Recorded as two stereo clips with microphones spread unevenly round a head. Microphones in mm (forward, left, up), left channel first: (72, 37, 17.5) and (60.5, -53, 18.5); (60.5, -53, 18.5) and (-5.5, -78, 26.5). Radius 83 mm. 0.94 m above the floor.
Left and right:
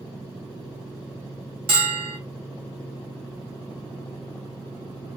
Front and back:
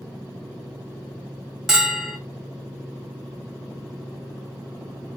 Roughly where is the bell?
Right.